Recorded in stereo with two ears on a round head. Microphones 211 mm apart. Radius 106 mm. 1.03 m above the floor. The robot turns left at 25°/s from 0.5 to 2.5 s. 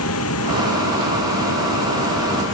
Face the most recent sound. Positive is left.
turn(degrees=60)